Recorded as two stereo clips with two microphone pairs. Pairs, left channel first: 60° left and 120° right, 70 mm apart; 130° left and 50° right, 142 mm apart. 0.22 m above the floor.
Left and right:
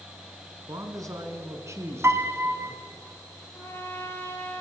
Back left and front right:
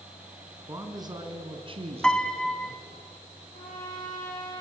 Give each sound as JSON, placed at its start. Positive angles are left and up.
{"t": 0.7, "sound": "a man speaking", "azimuth_deg": -115, "distance_m": 2.5}
{"t": 2.0, "sound": "a piano", "azimuth_deg": -150, "distance_m": 1.1}
{"t": 3.5, "sound": "a trumpet", "azimuth_deg": 115, "distance_m": 5.0}